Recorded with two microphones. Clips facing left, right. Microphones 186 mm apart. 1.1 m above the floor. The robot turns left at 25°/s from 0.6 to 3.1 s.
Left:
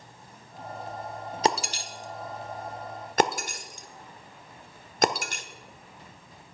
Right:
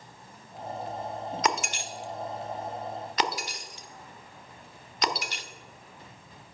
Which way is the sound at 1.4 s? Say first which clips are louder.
Left 4 dB; 30° left (ahead or behind).